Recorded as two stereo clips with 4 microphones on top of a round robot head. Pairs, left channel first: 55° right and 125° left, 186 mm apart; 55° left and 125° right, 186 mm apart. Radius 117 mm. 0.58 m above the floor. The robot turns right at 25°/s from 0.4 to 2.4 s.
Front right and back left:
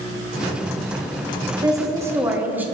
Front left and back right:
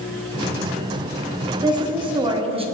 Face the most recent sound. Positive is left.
turn(degrees=-160)